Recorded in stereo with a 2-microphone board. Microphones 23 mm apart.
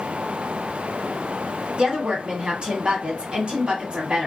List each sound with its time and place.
1.8 s a woman speaking: 40° right (ahead or behind), 1.4 m